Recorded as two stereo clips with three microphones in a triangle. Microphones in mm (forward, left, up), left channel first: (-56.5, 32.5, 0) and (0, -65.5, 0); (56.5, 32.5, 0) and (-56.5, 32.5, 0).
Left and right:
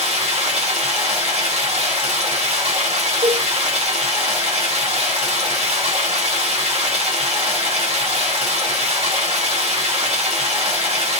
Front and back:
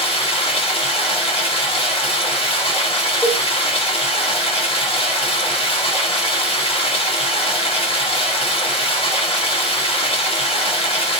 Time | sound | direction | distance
0.0 | running water | 40° right | 1.8 m
3.2 | a cowbell | 90° right | 2.5 m